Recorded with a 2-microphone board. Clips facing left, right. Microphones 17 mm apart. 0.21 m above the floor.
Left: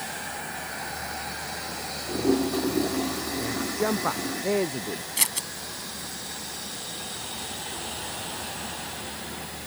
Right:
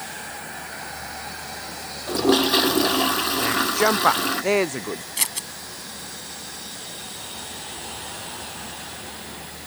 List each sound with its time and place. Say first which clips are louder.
2.1 s a toilet flushing: right 6 dB; 70° right (ahead or behind)
3.4 s a man speaking: right 7 dB; 50° right (ahead or behind)
5.2 s scissors: left 1 dB; 5° right (ahead or behind)